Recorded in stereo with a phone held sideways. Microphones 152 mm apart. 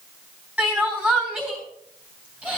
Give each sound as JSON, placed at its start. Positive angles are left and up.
{"t": 0.6, "sound": "crying", "side_deg": -5, "distance_m": 3.5}